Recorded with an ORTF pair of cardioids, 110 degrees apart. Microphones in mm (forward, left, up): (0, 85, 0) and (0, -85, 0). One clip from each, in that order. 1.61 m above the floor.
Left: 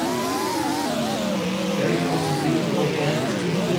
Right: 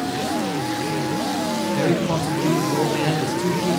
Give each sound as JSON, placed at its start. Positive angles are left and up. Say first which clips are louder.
{"t": 1.7, "sound": "a man speaking", "louder": "even", "azimuth_deg": -35, "distance_m": 1.2}